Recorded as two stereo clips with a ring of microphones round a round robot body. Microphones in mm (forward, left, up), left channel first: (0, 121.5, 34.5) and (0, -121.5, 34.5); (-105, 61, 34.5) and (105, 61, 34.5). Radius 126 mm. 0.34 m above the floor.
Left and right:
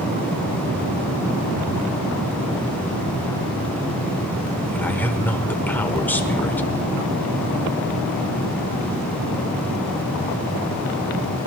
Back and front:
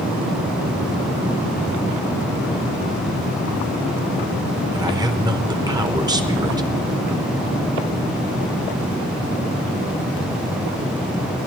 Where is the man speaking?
20° left, 1.1 m.